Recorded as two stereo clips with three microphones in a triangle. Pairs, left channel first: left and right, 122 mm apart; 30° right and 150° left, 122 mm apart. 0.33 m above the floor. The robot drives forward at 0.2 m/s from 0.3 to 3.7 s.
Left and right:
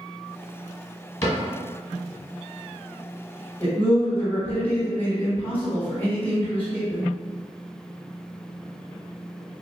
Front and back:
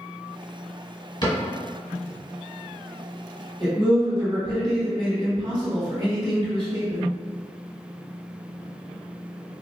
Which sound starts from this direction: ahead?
A cupboard door, at 1.2 s.